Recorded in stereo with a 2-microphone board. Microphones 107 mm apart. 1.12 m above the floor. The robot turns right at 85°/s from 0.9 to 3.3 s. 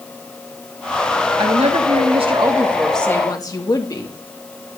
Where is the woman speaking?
130° right, 1.7 m; by 4.1 s 35° left, 1.7 m.